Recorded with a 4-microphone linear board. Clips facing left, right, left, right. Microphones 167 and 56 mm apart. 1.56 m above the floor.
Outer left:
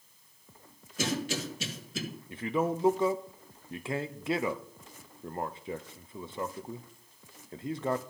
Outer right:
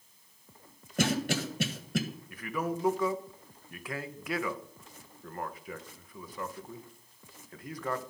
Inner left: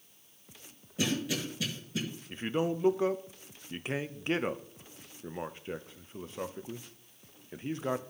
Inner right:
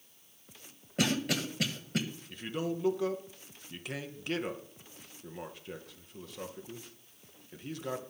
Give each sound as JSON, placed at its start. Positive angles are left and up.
{"t": 1.0, "sound": "a cough", "side_deg": -60, "distance_m": 1.6}
{"t": 2.3, "sound": "a man speaking", "side_deg": 25, "distance_m": 0.7}